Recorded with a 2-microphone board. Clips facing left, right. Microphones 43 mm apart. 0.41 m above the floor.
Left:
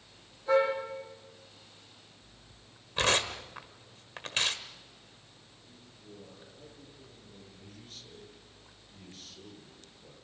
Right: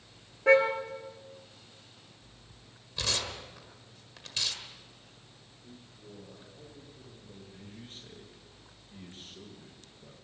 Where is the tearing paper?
45° left (ahead or behind), 1.4 m.